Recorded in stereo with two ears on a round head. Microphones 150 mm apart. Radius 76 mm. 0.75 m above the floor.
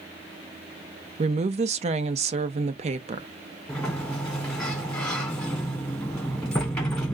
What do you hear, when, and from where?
1.2 s a woman speaking: 40° right (ahead or behind), 0.7 m
3.7 s a sliding door: 5° left (ahead or behind), 1.5 m